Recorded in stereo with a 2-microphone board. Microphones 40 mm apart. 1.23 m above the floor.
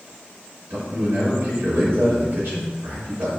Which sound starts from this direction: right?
A man speaking, at 0.7 s.